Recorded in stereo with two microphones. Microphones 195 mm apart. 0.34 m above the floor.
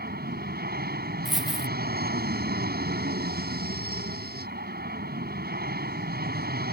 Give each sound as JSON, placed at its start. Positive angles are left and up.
{"t": 0.0, "sound": "an aircraft", "side_deg": -55}
{"t": 1.2, "sound": "a dropped coin", "side_deg": 0}